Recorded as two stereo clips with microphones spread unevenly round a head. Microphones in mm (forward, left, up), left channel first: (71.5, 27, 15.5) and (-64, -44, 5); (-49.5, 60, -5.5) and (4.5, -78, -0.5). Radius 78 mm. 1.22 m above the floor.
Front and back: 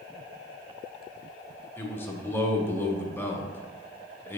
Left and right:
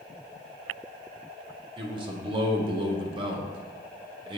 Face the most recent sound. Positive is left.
turn(degrees=-45)